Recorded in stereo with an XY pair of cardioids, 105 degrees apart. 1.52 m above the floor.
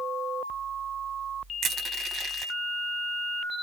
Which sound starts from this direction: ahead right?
Crushing, at 1.6 s.